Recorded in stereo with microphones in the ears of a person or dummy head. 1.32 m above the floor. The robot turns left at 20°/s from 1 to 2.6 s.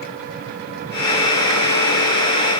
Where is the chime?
No chime in this recording.